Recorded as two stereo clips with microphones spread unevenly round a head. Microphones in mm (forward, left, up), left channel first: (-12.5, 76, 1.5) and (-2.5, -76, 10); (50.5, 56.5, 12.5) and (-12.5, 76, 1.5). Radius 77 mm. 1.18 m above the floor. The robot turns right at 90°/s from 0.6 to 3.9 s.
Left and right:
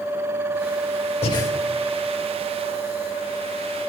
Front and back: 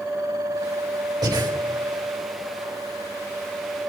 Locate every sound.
1.2 s breathing: 145° left, 3 m; by 1.5 s 170° left, 3 m